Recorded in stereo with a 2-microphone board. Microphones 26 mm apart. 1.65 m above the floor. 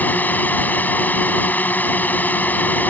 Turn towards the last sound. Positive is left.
turn(degrees=75)  # may be behind; listen again after turning